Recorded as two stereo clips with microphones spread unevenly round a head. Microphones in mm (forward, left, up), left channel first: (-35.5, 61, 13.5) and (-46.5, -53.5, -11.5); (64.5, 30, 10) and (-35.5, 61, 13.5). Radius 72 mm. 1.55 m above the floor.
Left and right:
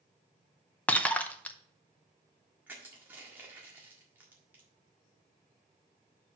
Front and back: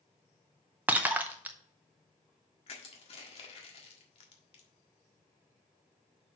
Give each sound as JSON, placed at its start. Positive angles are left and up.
{"t": 0.9, "sound": "breaking glass", "azimuth_deg": 115, "distance_m": 0.7}
{"t": 2.7, "sound": "crushing", "azimuth_deg": -10, "distance_m": 1.5}